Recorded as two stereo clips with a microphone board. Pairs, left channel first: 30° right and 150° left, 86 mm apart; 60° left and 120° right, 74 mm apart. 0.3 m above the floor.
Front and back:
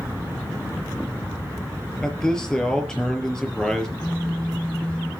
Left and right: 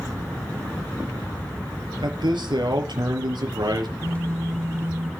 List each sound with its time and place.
2.0 s a man speaking: 115° right, 5 m
4.0 s a phone buzzing: 100° right, 1.6 m